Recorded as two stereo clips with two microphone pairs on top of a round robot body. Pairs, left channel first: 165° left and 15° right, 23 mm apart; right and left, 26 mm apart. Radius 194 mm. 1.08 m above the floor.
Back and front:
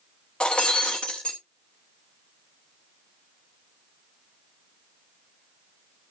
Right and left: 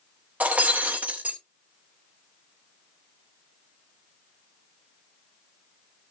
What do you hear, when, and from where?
0.4 s breaking glass: 105° left, 0.7 m